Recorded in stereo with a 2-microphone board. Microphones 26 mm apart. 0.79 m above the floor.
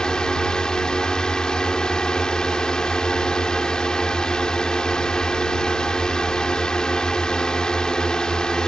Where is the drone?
30° left (ahead or behind).